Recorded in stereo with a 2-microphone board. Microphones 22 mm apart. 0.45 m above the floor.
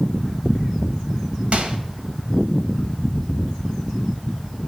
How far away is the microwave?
About 1.6 m.